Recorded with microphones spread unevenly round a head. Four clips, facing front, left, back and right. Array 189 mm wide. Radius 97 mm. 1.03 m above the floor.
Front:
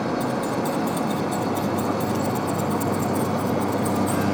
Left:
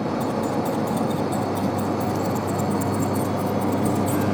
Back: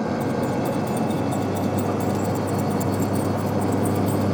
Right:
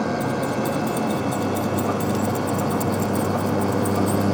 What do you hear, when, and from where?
0.2 s keys jangling: 80° right, 3.5 m; by 4.2 s 165° right, 3.5 m